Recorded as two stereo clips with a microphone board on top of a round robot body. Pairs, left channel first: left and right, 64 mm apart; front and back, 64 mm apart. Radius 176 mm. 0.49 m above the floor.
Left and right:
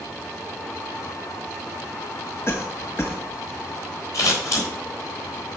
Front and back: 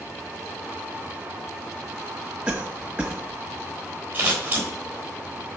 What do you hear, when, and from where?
2.5 s a cough: 110° left, 1.0 m
4.1 s scissors: 115° left, 3.5 m